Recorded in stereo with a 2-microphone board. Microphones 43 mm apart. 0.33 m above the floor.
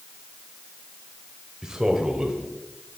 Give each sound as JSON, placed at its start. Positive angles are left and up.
{"t": 1.6, "sound": "a man speaking", "side_deg": -15, "distance_m": 1.7}